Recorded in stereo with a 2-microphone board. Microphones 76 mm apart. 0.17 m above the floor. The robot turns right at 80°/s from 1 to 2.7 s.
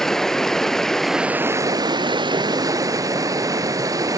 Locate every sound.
0.0 s running water: 175° left, 0.7 m; by 4.2 s 50° right, 0.7 m